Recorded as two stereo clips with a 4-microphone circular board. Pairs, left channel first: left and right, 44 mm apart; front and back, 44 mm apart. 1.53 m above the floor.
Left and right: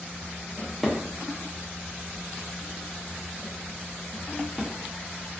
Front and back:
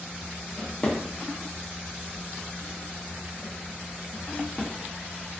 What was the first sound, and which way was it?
A drawer, 5° left.